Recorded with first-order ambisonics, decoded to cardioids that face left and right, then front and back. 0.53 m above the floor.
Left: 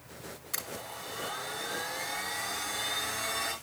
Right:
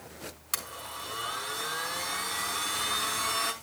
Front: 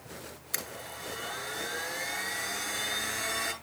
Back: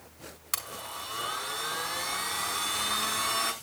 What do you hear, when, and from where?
0.5 s a blender: 145° right, 5 m